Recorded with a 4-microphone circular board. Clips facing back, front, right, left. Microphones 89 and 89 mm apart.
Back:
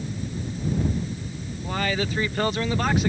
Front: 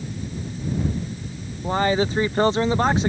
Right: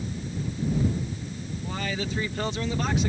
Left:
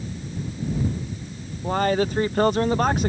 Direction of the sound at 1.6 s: 60° left.